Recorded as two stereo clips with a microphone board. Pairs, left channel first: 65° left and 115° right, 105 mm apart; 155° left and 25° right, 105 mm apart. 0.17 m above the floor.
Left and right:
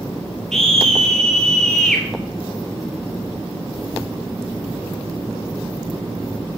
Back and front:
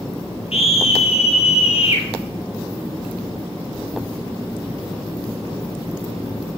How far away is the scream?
About 3.5 m.